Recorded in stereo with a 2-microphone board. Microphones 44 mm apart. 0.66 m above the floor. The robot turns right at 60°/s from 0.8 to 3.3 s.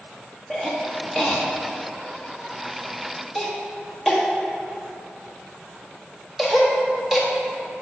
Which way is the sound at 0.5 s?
15° left (ahead or behind).